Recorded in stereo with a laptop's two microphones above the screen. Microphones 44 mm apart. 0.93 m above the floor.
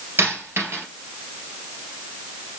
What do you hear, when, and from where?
0.2 s a dropped coin: 70° right (ahead or behind), 2.5 m